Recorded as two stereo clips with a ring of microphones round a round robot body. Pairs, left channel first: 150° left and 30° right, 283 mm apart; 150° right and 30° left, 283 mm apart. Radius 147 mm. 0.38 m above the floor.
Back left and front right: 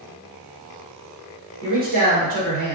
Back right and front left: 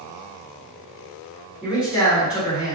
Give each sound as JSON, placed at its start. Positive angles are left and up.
{"t": 1.6, "sound": "a man speaking", "azimuth_deg": -55, "distance_m": 1.6}